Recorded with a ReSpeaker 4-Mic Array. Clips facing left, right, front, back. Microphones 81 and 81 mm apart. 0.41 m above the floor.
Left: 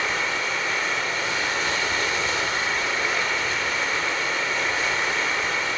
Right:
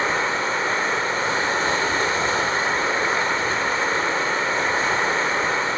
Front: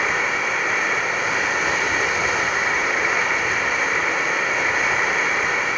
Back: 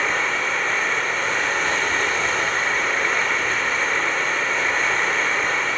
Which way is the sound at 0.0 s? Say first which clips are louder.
Right 4 dB, front 1 dB; 80° right.